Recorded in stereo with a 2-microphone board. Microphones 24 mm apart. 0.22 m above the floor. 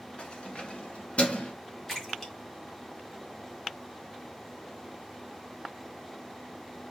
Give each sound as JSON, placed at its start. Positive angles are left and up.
{"t": 0.2, "sound": "keys jangling", "side_deg": 50, "distance_m": 1.9}
{"t": 1.9, "sound": "a splash", "side_deg": 10, "distance_m": 1.7}